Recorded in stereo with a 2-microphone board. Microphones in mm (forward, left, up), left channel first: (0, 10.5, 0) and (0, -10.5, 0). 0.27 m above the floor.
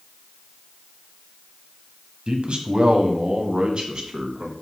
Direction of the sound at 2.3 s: 50° right (ahead or behind).